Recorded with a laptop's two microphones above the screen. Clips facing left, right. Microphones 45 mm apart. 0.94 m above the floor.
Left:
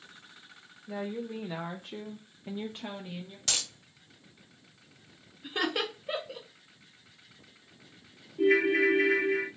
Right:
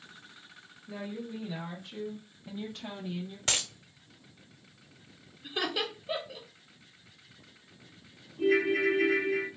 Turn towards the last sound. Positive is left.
turn(degrees=80)